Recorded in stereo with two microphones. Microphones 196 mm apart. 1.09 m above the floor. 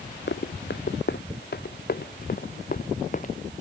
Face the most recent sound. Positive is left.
turn(degrees=40)  # may be behind; listen again after turning